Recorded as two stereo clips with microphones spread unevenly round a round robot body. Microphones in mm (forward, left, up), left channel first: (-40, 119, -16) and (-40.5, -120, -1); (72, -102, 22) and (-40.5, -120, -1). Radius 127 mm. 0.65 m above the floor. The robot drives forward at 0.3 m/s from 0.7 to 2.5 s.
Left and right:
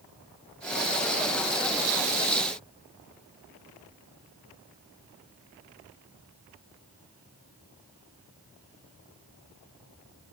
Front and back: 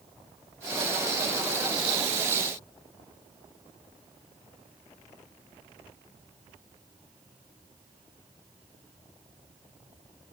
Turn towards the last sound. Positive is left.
No sound to turn to.